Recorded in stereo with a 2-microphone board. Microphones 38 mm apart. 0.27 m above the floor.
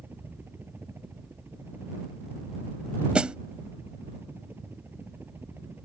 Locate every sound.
0.0 s a helicopter: 75° right (ahead or behind)
3.1 s a snare drum: 30° right (ahead or behind)